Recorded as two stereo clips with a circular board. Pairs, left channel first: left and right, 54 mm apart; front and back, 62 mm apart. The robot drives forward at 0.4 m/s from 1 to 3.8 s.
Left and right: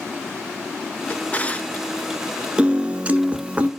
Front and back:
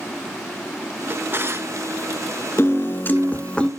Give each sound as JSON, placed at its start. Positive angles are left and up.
{"t": 1.1, "sound": "a drawer", "azimuth_deg": 135, "distance_m": 0.6}
{"t": 2.6, "sound": "a piano", "azimuth_deg": -25, "distance_m": 1.0}